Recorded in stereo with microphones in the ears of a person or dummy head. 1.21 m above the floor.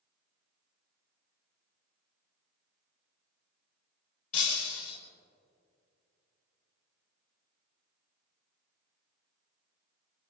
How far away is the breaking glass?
About 5 m.